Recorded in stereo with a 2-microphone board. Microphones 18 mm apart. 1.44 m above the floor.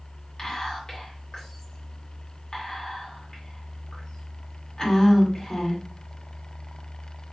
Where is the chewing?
I don't hear chewing.